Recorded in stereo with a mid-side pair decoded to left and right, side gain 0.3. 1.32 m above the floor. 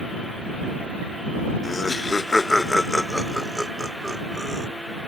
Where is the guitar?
No guitar in this recording.